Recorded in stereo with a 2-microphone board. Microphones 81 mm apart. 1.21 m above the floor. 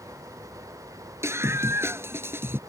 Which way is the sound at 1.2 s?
35° right (ahead or behind).